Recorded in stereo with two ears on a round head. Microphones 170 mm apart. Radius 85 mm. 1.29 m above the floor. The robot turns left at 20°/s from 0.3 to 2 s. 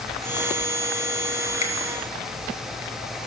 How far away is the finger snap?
About 1.4 m.